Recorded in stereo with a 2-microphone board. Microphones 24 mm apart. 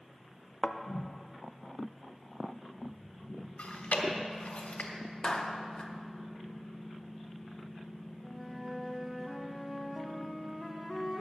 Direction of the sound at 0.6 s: 40° left (ahead or behind).